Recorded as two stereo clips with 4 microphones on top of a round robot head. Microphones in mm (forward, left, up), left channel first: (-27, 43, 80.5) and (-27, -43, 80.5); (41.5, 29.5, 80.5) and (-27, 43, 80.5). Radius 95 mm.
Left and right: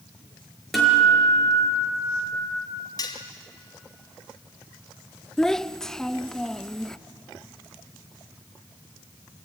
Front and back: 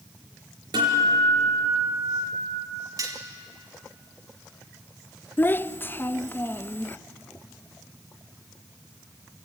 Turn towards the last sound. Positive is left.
turn(degrees=10)